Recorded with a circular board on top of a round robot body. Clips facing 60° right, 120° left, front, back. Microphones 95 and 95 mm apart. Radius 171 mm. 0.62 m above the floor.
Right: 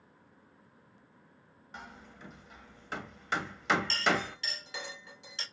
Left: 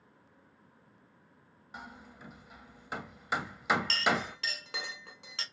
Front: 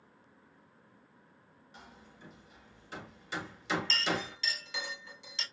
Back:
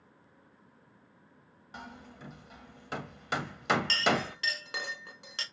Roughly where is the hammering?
Behind.